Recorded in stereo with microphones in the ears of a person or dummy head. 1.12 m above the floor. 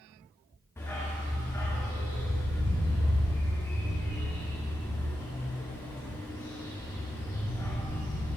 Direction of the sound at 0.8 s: 10° left (ahead or behind).